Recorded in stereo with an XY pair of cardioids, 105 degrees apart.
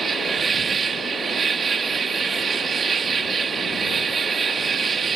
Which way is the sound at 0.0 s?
40° right.